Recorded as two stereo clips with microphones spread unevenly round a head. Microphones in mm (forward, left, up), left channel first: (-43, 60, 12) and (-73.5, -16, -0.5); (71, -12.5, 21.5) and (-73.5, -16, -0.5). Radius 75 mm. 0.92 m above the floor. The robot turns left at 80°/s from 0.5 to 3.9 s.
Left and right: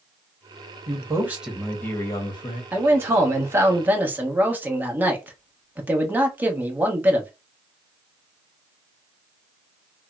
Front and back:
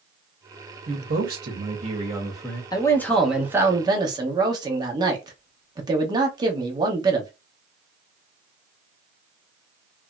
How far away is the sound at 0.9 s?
About 1.4 m.